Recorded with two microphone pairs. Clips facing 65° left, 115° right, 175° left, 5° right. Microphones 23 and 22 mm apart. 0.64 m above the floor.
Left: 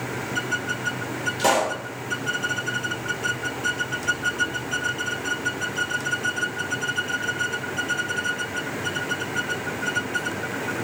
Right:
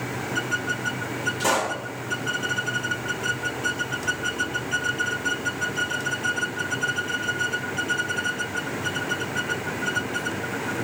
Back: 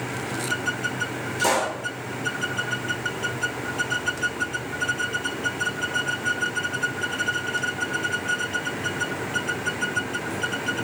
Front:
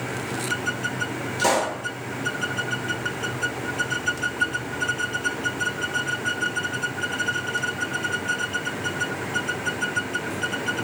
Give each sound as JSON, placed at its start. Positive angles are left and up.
{"t": 1.4, "sound": "a pop", "azimuth_deg": 65, "distance_m": 1.0}